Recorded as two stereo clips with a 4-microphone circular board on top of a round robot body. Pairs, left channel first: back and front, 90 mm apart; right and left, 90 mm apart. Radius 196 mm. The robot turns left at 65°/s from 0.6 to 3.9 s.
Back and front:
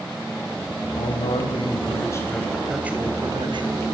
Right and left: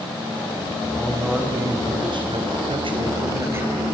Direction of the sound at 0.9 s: 160° right.